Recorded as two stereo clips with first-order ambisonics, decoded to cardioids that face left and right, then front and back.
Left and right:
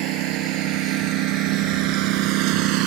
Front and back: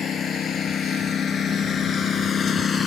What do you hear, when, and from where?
0.0 s a lawn mower: 65° right; by 2.9 s 70° right